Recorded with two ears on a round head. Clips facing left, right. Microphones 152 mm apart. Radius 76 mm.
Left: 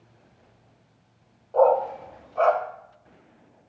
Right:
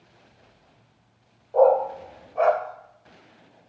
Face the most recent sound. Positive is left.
turn(degrees=-10)  # may be behind; listen again after turning